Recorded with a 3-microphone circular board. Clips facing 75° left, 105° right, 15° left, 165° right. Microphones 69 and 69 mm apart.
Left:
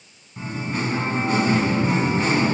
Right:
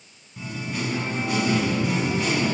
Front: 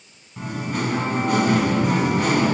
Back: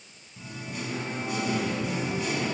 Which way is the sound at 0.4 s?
25° left.